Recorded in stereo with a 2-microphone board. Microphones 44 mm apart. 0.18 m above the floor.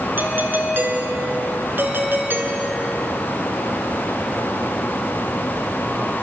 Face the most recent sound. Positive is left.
turn(degrees=-55)  # may be behind; listen again after turning